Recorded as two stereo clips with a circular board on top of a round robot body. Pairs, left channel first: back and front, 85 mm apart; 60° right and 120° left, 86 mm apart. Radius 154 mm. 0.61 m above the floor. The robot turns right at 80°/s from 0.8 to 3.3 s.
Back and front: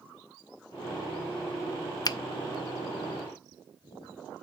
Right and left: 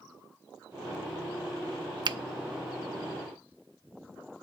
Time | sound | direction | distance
2.0 | a finger snap | 145° left | 0.6 m